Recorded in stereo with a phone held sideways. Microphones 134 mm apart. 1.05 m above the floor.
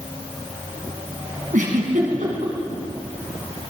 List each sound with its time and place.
1.5 s a giggle: 80° right, 3.5 m